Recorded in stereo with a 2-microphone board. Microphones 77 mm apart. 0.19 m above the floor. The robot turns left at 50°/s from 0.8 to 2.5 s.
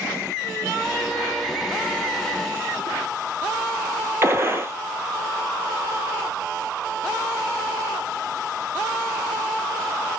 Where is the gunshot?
35° right (ahead or behind), 0.9 m.